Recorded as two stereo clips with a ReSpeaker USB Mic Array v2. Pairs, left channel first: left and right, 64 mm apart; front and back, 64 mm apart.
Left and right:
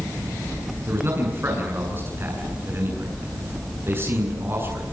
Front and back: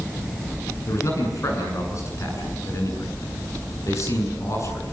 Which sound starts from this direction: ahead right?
A man speaking, at 0.9 s.